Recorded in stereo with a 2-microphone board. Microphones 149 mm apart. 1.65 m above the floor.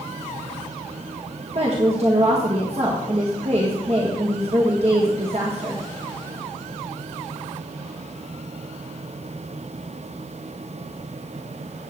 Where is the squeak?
No squeak in this recording.